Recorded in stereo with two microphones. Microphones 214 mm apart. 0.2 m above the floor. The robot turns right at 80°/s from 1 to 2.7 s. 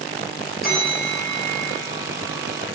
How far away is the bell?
About 3 m.